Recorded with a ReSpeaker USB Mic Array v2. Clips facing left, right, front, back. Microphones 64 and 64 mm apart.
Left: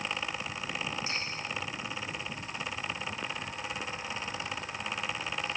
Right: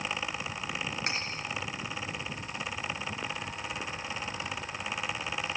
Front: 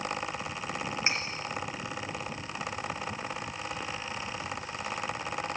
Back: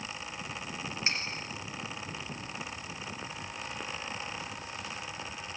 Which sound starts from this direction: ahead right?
Cutlery clinking, at 1.1 s.